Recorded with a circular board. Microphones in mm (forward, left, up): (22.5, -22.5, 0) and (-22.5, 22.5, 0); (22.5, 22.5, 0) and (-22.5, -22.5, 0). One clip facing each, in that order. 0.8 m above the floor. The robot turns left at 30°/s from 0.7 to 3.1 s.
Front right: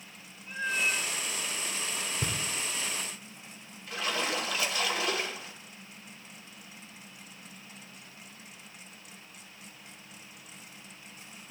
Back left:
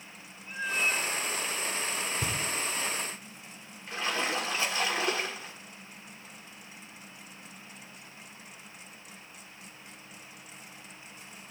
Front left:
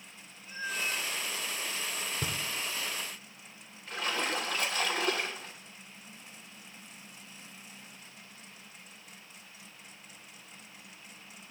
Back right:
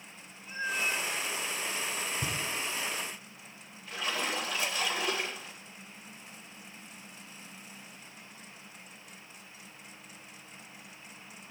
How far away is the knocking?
About 1.7 m.